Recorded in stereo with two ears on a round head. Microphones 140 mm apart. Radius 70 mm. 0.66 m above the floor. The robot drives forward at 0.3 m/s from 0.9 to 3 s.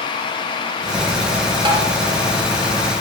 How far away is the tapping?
About 2.5 m.